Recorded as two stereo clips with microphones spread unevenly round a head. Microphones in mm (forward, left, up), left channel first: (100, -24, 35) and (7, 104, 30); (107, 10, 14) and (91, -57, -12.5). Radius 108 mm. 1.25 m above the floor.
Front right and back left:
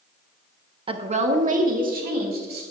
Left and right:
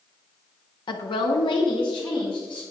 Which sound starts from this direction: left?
A woman speaking, at 0.9 s.